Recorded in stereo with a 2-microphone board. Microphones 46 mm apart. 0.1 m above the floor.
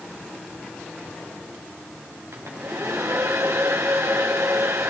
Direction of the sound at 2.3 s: 75° right (ahead or behind).